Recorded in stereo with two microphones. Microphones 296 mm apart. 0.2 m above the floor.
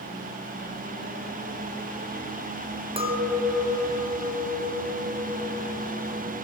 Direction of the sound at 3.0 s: 20° right (ahead or behind).